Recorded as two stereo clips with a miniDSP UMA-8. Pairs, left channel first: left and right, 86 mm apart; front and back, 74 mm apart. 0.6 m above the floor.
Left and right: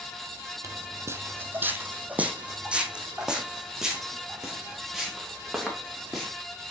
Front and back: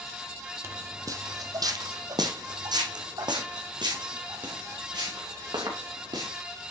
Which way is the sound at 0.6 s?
135° right.